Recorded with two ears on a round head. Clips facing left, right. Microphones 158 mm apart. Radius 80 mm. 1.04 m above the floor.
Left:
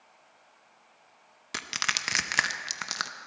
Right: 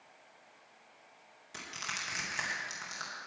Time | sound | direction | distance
1.5 | crushing | 70° left (ahead or behind) | 0.8 m